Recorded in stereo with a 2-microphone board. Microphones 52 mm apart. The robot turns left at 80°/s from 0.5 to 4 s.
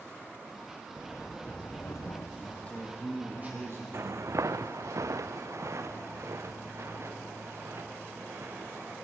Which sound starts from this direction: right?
Footsteps, at 3.9 s.